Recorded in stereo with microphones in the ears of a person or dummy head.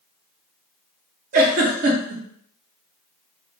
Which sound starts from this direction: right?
A giggle, at 1.3 s.